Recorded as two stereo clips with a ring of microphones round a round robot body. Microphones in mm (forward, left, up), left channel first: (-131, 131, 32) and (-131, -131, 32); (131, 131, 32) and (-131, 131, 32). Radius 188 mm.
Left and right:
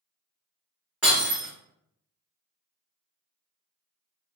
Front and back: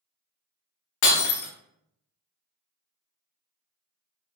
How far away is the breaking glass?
About 0.6 m.